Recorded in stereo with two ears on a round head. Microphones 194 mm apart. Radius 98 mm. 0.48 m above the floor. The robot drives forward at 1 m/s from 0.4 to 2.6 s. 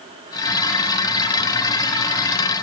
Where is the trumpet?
No trumpet in this recording.